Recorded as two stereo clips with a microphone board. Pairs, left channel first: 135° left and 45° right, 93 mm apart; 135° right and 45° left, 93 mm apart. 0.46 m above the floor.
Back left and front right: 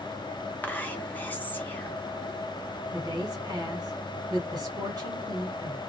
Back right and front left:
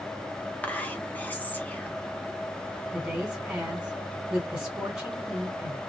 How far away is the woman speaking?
About 1.7 m.